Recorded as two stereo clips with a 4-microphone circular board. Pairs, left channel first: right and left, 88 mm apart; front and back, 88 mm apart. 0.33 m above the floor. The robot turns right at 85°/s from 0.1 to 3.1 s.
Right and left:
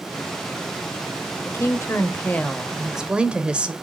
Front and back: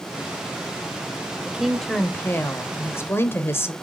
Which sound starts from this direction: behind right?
A woman speaking, at 1.4 s.